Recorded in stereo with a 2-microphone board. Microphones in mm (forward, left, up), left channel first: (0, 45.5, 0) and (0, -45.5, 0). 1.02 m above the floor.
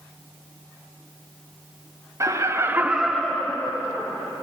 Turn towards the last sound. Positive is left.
turn(degrees=25)  # may be behind; listen again after turning